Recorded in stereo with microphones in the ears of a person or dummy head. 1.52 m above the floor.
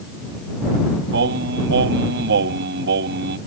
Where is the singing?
65° right (ahead or behind).